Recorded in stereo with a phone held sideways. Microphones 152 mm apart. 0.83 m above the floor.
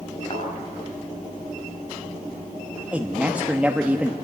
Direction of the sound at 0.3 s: 45° left (ahead or behind).